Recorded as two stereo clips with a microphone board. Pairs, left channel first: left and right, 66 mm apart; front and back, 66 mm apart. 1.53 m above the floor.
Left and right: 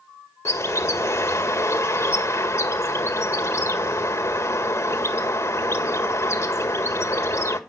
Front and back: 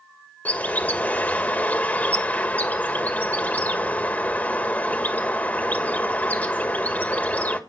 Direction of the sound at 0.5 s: 60° left.